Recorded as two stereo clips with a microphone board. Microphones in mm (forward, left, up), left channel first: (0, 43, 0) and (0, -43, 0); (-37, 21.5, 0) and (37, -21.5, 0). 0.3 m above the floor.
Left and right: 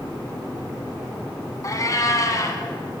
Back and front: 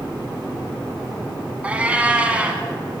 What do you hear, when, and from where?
1.6 s a cat meowing: 45° left, 1.1 m